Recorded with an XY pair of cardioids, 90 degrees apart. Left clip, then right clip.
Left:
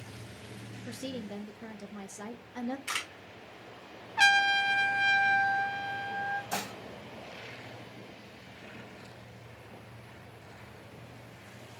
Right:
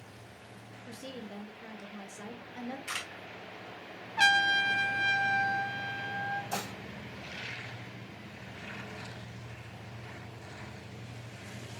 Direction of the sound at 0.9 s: 40° left.